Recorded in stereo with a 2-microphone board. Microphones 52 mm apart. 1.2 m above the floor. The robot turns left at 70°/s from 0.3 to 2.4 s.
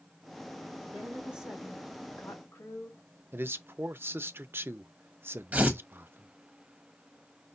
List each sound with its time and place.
0.9 s a woman speaking: 140° right, 3.5 m; by 3.0 s 115° left, 3.5 m
3.3 s a man speaking: 45° right (ahead or behind), 0.5 m
5.5 s tearing paper: 30° right (ahead or behind), 1.3 m